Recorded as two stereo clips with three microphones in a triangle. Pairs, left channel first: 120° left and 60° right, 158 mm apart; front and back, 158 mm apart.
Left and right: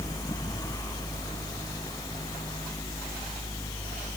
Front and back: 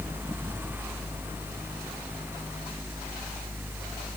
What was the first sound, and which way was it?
Only background noise.